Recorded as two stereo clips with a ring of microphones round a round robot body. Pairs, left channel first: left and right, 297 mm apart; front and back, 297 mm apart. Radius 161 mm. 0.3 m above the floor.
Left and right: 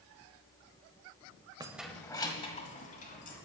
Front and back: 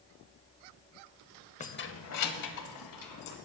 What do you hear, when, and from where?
1.6 s keys jangling: 30° right, 0.6 m; by 3.4 s 25° left, 1.9 m